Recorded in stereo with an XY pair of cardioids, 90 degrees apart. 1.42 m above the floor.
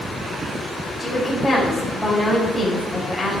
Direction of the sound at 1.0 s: 20° left.